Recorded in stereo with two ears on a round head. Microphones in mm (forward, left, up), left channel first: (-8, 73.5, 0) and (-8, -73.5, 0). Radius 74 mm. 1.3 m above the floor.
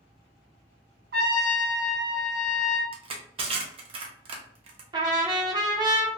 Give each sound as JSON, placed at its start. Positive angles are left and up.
{"t": 1.1, "sound": "a trumpet", "side_deg": -75, "distance_m": 0.9}
{"t": 2.9, "sound": "crushing", "side_deg": -35, "distance_m": 0.6}
{"t": 4.9, "sound": "a trumpet", "side_deg": -25, "distance_m": 0.5}